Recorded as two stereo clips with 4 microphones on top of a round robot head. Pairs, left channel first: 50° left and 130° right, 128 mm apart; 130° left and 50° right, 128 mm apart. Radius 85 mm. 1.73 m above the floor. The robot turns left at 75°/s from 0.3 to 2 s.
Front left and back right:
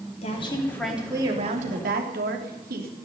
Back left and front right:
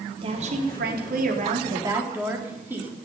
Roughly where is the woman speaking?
Ahead.